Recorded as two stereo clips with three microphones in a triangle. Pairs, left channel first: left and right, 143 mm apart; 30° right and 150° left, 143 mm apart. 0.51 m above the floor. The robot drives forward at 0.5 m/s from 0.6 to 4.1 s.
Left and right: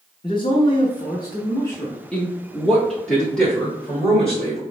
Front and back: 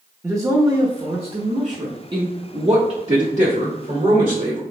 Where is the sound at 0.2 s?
105° left, 0.7 m; by 2.0 s 155° left, 1.1 m.